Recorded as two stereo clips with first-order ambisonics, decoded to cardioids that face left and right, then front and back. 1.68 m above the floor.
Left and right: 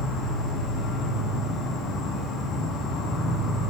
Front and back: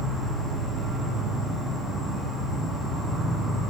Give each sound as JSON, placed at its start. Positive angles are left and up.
{"t": 0.0, "sound": "an insect", "azimuth_deg": 95, "distance_m": 1.9}